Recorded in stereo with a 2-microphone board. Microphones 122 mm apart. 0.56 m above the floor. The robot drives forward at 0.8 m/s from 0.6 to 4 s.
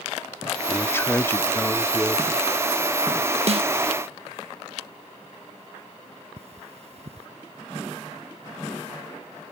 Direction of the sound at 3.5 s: 55° right (ahead or behind).